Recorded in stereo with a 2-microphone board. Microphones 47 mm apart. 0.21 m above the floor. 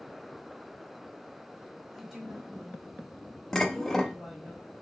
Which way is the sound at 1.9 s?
5° right (ahead or behind).